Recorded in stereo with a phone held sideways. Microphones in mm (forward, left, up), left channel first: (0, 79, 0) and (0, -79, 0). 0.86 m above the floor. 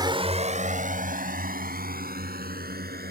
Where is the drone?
25° right (ahead or behind); by 3.1 s 70° right (ahead or behind).